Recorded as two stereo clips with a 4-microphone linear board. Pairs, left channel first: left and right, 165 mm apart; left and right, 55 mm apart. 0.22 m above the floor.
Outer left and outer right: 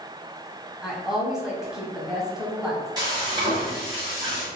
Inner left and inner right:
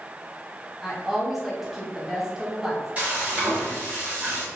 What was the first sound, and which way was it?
A woman speaking, 5° right (ahead or behind).